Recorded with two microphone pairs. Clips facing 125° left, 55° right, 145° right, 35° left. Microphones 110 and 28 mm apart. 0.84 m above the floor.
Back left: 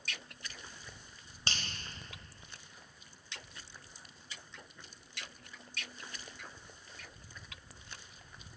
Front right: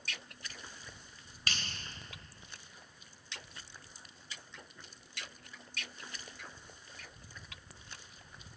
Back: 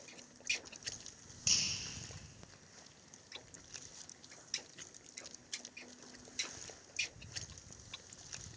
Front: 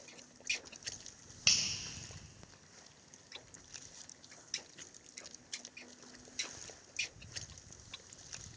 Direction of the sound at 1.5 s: 65° left.